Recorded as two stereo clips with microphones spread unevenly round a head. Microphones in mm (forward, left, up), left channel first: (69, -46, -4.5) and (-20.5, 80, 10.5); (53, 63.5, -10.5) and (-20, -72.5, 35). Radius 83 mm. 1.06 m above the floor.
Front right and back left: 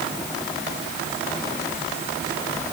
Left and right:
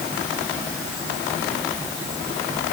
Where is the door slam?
I don't hear a door slam.